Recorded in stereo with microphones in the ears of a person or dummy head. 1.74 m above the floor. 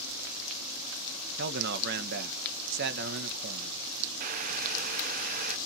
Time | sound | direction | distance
1.4 | a man speaking | 60° right (ahead or behind) | 1.9 m
4.2 | boiling | 50° right (ahead or behind) | 1.0 m